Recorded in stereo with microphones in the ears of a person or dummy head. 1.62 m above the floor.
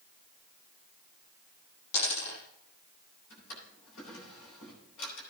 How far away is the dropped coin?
About 5.5 m.